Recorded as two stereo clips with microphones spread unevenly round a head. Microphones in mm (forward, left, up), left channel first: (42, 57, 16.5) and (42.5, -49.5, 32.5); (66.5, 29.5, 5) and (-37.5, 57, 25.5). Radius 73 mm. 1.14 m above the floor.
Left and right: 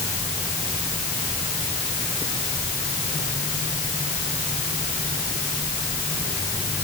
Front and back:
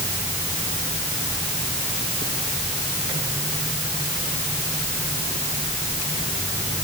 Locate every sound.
Only background noise.